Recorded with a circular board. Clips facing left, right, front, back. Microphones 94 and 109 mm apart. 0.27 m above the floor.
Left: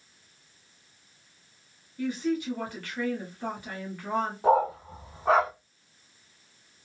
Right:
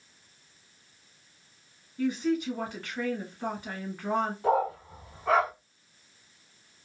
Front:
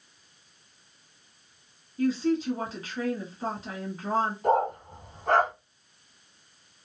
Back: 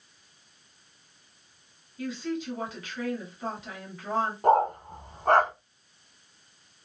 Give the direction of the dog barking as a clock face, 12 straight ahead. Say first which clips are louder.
Left 6 dB, back 5 dB; 7 o'clock.